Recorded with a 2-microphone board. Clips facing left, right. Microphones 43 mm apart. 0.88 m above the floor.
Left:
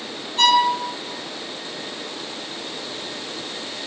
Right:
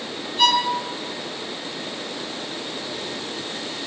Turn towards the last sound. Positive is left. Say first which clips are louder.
# left 3 dB
turn(degrees=65)  # may be behind; listen again after turning